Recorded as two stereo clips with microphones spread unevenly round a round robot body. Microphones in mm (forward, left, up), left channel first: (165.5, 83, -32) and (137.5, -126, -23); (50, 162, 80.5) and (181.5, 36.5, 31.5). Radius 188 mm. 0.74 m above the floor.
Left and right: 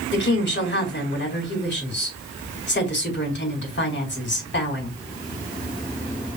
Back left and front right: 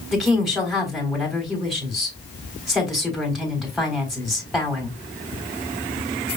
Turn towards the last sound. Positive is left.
turn(degrees=45)